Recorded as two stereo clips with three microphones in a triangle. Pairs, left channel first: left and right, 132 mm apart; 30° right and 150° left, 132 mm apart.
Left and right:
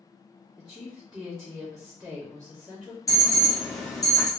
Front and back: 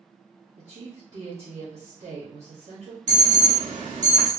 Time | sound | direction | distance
0.6 | a woman speaking | straight behind | 1.6 m
3.1 | an alarm | 150° left | 1.2 m